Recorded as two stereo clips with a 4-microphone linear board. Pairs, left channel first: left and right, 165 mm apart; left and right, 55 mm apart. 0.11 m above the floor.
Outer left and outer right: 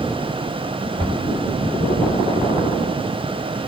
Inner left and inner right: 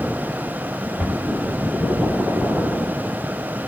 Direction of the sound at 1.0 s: 30° right (ahead or behind).